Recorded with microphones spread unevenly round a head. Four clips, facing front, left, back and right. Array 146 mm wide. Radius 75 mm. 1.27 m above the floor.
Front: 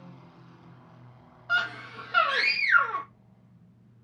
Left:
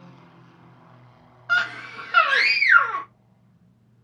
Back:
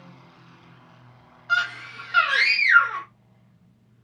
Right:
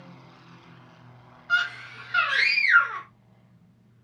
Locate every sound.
1.5 s a scream: 70° left, 1.1 m